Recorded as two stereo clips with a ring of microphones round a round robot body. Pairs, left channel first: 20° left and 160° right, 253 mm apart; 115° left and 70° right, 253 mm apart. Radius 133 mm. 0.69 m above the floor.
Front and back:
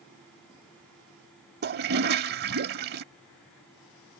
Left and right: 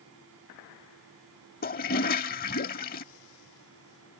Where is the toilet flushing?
160° left.